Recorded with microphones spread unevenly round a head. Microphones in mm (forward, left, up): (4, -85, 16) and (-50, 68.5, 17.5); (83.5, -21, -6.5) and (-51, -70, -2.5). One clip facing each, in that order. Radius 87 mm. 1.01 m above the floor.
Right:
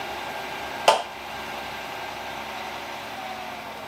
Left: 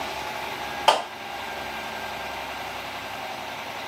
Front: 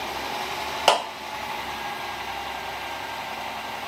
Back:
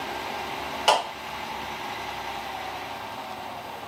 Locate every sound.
0.9 s a clap: 15° right, 1.1 m